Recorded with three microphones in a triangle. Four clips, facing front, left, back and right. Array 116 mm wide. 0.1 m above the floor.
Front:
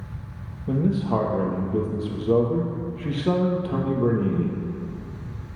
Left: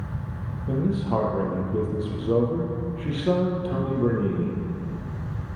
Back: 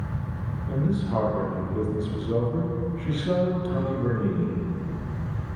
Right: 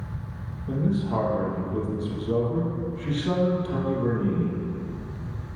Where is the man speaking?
30° left, 3 m.